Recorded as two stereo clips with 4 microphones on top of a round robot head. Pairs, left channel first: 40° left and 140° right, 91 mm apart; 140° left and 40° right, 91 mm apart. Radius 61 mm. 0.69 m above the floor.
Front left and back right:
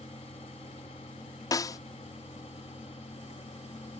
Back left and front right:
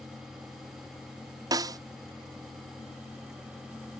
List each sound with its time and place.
1.5 s a snare drum: straight ahead